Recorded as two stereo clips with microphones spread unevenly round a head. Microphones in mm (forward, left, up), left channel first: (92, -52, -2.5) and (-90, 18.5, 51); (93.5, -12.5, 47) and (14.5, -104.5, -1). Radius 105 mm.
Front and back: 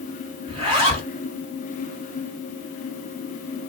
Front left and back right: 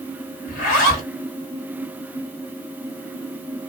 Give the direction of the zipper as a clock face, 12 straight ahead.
9 o'clock.